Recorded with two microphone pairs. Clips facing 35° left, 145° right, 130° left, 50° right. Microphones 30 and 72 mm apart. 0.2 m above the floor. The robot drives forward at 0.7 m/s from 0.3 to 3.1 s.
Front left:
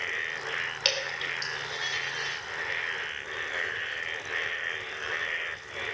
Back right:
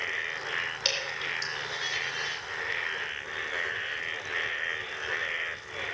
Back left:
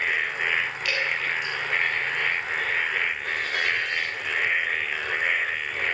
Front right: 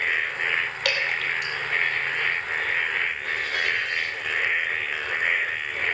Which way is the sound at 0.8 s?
25° right.